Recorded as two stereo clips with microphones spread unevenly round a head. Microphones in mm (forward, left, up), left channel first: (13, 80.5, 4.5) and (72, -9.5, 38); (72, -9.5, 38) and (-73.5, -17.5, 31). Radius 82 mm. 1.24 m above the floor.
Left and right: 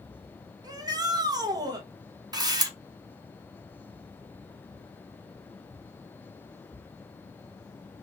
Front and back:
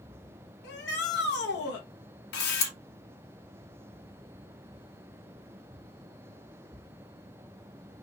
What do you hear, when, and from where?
0.6 s a shout: 5° right, 1.2 m
2.3 s a camera shutter: straight ahead, 1.6 m